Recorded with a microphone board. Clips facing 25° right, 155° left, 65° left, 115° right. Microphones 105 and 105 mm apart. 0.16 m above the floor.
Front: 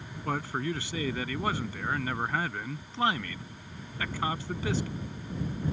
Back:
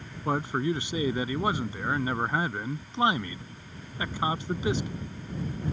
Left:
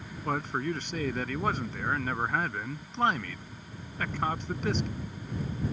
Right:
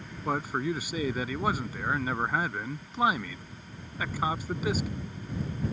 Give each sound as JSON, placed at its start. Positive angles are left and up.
{"t": 0.2, "sound": "a man speaking", "azimuth_deg": 175}